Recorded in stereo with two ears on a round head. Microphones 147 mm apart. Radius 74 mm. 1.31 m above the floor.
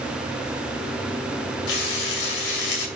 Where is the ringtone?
I don't hear a ringtone.